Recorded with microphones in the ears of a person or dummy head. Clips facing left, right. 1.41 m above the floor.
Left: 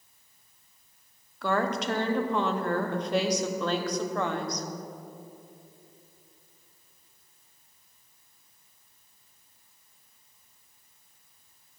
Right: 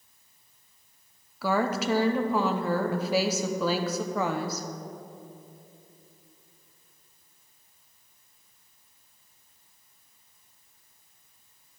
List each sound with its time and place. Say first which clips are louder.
1.4 s a woman speaking: right 1 dB; 10° right (ahead or behind), 0.6 m